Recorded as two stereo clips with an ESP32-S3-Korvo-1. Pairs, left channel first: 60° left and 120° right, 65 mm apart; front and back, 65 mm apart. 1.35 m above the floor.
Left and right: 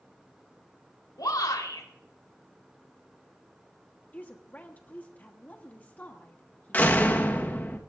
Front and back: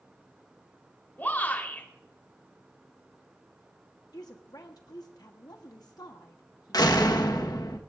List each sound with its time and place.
1.2 s a shout: 60° left, 3.5 m
4.1 s a woman speaking: 5° right, 1.1 m
6.7 s a door slam: 5° right, 1.3 m